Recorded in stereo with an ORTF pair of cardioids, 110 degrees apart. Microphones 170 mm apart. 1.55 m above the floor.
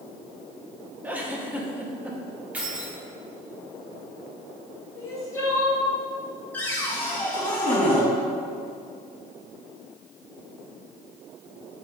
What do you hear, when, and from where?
1.0 s a giggle: 10° right, 1.7 m
2.5 s keys jangling: 10° right, 3 m
5.0 s crying: 20° left, 3.5 m
6.5 s a cupboard door: 10° left, 4 m